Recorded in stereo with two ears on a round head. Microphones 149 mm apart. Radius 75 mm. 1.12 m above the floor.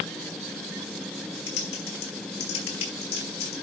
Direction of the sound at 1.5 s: 70° left (ahead or behind).